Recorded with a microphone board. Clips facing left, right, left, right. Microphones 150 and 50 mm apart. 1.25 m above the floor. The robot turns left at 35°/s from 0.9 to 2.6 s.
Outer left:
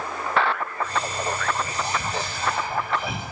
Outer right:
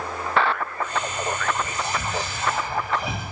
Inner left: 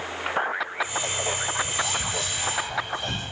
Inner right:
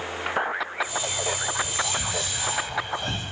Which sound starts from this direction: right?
Whispering, at 1.6 s.